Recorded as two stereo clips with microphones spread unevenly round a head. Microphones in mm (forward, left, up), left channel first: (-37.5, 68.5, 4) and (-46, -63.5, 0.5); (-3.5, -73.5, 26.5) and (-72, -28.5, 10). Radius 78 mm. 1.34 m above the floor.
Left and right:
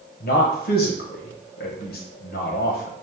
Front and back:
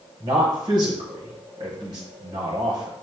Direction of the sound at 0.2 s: 90° left.